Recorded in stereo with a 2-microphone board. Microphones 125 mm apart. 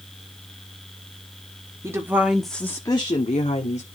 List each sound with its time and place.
1.8 s a woman speaking: 25° right (ahead or behind), 1.7 m; by 3.9 s 65° left (ahead or behind), 1.9 m